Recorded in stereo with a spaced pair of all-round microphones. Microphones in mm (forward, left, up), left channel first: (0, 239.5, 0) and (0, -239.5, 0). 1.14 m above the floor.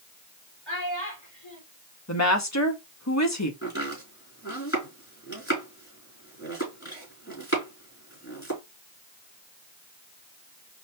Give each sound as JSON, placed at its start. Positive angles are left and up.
{"t": 0.7, "sound": "a child speaking", "side_deg": 65, "distance_m": 2.5}
{"t": 2.1, "sound": "a woman speaking", "side_deg": 35, "distance_m": 1.2}
{"t": 3.6, "sound": "chopping", "side_deg": 25, "distance_m": 4.0}